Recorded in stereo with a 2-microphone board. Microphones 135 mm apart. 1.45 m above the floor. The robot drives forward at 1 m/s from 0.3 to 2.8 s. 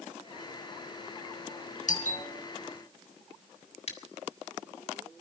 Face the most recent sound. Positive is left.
turn(degrees=50)  # may be behind; listen again after turning